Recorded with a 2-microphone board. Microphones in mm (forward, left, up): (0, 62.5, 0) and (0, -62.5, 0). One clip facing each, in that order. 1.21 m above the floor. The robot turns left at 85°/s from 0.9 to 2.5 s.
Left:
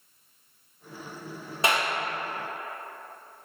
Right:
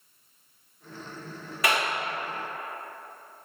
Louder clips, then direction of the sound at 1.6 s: Left 1 dB; 25° left (ahead or behind).